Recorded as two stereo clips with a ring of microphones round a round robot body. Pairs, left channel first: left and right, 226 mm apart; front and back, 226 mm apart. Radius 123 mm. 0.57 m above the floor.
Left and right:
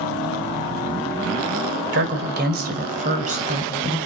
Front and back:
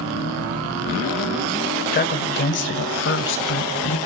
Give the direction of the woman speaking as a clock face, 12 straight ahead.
2 o'clock.